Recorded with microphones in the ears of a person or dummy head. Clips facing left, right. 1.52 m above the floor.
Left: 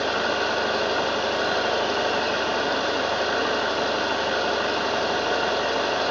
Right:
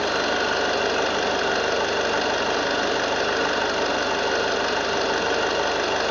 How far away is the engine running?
About 1.4 m.